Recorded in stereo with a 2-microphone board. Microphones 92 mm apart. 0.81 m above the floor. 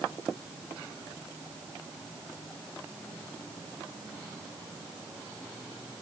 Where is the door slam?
No door slam in this recording.